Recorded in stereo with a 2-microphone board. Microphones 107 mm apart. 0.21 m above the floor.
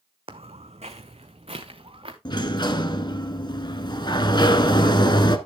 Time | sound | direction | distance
0.3 | footsteps | 60° right (ahead or behind) | 0.9 m
2.2 | a sliding door | 45° left (ahead or behind) | 1.0 m